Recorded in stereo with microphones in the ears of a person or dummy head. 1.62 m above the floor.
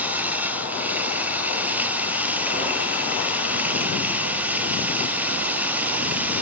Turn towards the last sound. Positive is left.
turn(degrees=-5)  # may be behind; listen again after turning